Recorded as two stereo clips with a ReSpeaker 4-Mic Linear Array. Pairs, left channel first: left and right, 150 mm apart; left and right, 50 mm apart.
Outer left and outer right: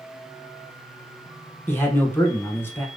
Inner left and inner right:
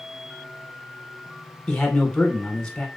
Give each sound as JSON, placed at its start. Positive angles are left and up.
{"t": 1.7, "sound": "a man speaking", "side_deg": 15, "distance_m": 1.0}